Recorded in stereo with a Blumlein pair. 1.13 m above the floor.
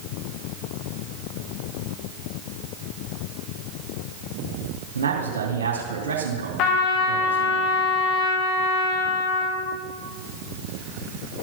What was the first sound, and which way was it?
A man speaking, 65° right.